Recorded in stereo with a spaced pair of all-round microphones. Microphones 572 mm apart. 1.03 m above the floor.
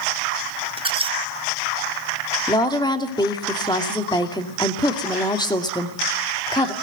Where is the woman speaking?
5° left (ahead or behind), 2.5 m.